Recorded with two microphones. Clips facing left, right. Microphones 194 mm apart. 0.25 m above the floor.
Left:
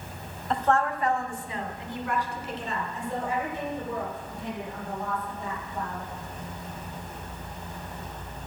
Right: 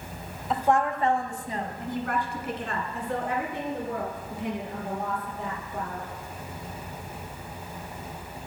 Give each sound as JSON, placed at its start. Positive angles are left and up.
{"t": 0.5, "sound": "a woman speaking", "side_deg": -5, "distance_m": 1.0}